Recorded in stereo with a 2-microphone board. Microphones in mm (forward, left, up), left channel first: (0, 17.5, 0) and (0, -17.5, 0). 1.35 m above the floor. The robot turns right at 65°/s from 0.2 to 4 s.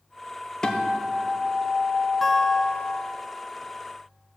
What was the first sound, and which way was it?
A guitar, 150° left.